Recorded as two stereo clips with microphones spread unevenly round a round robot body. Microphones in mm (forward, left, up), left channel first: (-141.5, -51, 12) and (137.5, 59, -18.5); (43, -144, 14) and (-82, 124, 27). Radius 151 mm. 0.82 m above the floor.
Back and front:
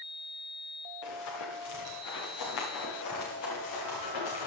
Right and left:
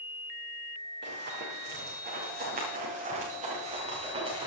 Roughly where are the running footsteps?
Behind.